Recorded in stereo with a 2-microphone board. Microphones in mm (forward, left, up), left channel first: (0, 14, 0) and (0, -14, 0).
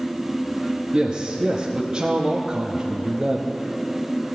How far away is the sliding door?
No sliding door in this recording.